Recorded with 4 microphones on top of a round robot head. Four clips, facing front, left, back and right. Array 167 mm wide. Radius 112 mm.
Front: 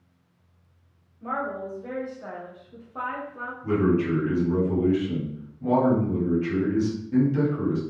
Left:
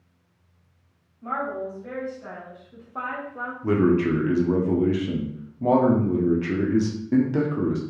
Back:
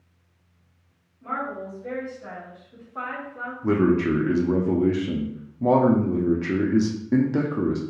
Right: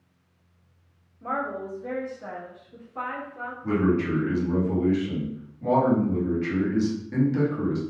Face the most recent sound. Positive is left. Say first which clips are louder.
# left 3 dB, back 2 dB
turn(degrees=145)